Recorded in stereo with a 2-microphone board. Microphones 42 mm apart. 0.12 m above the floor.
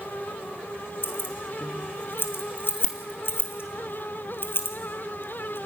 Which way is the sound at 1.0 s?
60° left (ahead or behind).